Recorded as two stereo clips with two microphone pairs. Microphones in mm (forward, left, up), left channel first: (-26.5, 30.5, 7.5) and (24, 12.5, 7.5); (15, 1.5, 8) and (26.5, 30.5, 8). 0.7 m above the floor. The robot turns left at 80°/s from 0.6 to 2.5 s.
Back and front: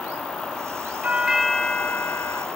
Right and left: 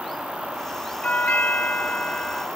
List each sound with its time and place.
1.0 s a doorbell: 75° right; by 2.5 s 170° left